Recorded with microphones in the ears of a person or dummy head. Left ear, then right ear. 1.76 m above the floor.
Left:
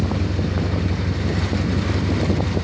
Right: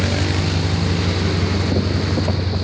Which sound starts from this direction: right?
An engine running, at 0.0 s.